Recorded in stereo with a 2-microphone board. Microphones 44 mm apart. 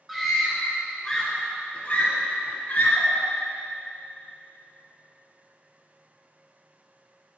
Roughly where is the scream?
Centre.